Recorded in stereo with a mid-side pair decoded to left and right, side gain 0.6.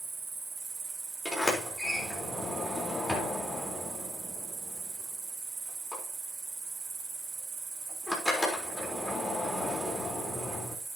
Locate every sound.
0.0 s an insect: 35° right, 5 m
1.2 s a sliding door: 5° left, 4 m